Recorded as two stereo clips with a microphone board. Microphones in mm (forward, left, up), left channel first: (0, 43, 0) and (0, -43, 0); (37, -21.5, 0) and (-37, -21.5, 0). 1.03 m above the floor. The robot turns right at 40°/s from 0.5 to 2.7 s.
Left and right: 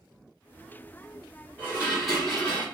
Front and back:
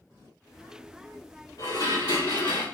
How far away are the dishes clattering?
About 1.3 m.